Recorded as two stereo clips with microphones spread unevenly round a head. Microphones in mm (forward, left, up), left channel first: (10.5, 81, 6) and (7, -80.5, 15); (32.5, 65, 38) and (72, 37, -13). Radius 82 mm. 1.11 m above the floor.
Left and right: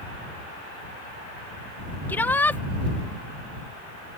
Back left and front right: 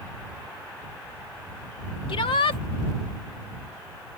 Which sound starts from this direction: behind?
A shout, at 2.1 s.